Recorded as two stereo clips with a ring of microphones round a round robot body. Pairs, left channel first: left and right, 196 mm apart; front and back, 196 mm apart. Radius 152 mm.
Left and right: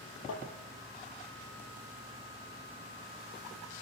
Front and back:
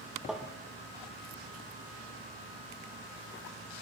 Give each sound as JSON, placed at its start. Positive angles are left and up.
{"t": 0.3, "sound": "tapping", "azimuth_deg": 95, "distance_m": 4.0}